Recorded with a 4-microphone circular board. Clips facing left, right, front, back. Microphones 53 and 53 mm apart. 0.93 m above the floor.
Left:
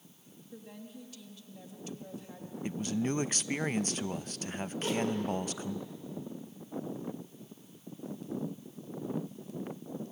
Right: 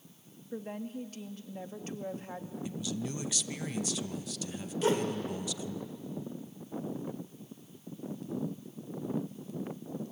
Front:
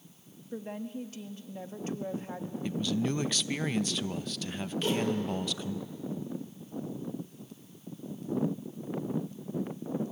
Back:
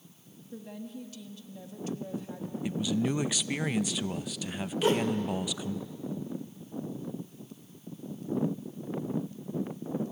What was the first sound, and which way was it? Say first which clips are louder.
A woman speaking: right 9 dB, front 4 dB; 45° right.